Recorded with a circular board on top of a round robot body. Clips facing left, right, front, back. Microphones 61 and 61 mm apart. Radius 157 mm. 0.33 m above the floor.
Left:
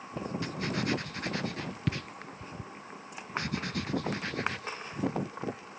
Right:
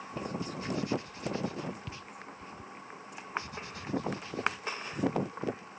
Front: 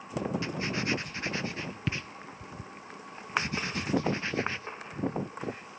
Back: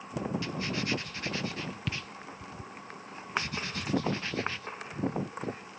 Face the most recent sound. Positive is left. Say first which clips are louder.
# left 6 dB, front 2 dB
turn(degrees=65)